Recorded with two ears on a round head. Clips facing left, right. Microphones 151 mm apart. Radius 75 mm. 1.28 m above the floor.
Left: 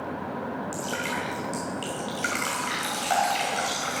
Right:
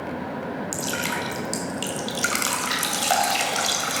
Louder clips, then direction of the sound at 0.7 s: Right 2 dB; 60° right (ahead or behind).